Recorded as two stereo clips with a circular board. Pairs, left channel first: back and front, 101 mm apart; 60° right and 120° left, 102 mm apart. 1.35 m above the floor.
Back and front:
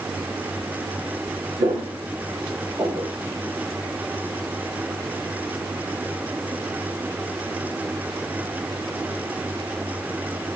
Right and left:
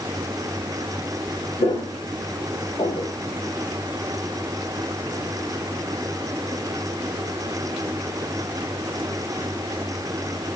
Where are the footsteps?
25° right, 6 m; by 3.1 s 40° right, 4.5 m.